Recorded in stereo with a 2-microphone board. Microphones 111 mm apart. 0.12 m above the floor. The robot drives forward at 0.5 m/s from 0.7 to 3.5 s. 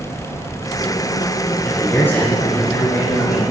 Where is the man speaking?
20° left (ahead or behind), 1.1 m; by 3.5 s 15° left (ahead or behind), 1.6 m.